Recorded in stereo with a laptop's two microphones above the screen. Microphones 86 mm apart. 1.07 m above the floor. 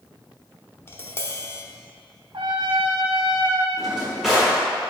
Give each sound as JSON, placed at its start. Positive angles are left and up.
{"t": 0.9, "sound": "tapping", "side_deg": 25, "distance_m": 0.7}
{"t": 2.3, "sound": "a trumpet", "side_deg": -65, "distance_m": 0.7}
{"t": 3.8, "sound": "a drawer", "side_deg": -5, "distance_m": 1.2}